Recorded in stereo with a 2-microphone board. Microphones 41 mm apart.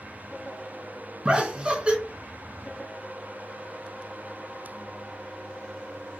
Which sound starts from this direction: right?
Laughter, at 1.2 s.